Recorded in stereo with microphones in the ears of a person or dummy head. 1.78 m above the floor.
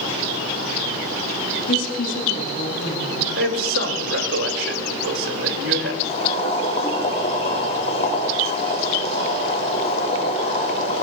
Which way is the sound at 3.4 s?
75° right (ahead or behind).